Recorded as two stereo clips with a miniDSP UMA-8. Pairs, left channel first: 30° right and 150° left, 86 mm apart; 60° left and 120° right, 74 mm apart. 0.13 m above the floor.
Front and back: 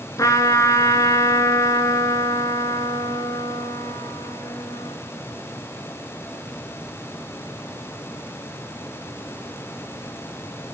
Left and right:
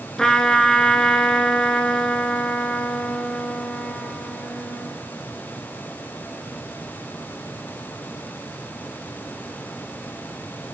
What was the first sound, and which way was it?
A trumpet, 20° right.